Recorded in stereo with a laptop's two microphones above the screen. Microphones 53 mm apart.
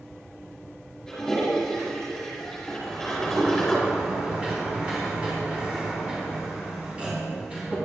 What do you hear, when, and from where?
1.1 s a toilet flushing: 10° left (ahead or behind), 4 m
2.8 s a sliding door: 20° right (ahead or behind), 3.5 m